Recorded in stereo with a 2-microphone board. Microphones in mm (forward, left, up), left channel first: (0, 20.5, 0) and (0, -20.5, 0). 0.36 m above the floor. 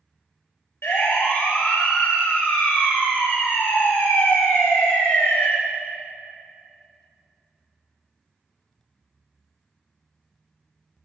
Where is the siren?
75° left (ahead or behind), 7 m; by 5.5 s 80° left, 5 m.